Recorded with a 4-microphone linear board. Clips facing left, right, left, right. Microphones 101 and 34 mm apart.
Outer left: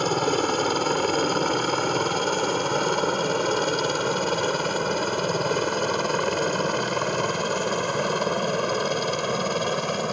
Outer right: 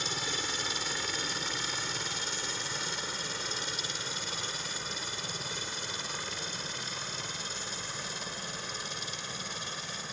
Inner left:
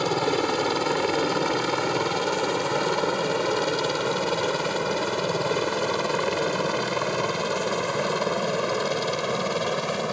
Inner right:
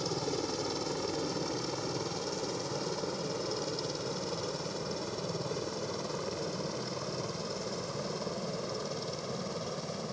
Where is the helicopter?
60° left (ahead or behind); by 10.1 s 65° left (ahead or behind).